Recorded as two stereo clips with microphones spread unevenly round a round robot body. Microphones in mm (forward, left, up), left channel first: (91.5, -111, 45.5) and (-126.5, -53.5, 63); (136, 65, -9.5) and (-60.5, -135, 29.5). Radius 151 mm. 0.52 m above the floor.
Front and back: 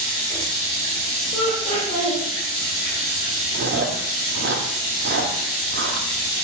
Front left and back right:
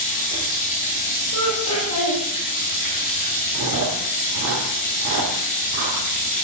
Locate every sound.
0.0 s running water: 60° left, 4 m
1.3 s laughter: 55° left, 2.5 m
3.5 s chewing: 170° right, 1.9 m